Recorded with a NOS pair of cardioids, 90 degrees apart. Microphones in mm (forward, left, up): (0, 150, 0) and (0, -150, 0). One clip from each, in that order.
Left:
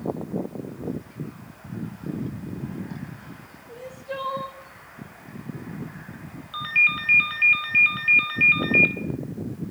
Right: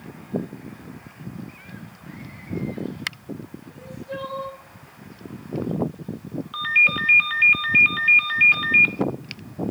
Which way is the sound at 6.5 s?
20° right.